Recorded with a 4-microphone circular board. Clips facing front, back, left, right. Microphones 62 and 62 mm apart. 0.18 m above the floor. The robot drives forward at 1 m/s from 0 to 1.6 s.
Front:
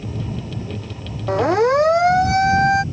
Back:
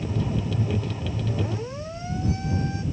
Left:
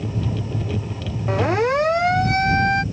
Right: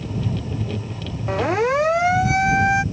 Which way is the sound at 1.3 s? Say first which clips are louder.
Front 19 dB, even; straight ahead.